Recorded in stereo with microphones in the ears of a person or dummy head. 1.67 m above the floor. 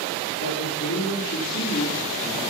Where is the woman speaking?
60° left (ahead or behind), 4 m; by 2.4 s 40° left (ahead or behind), 4 m.